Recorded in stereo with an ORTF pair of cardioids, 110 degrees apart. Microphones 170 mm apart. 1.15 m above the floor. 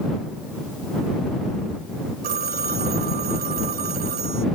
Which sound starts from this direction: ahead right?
A phone ringing, at 2.2 s.